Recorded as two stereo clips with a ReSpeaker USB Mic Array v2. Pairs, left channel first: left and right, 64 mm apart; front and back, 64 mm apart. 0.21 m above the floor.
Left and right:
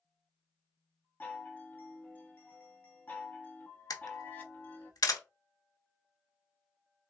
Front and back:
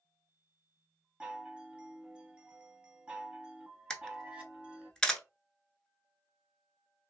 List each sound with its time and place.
1.2 s a chime: 125° left, 0.7 m
3.9 s a camera shutter: 80° left, 0.7 m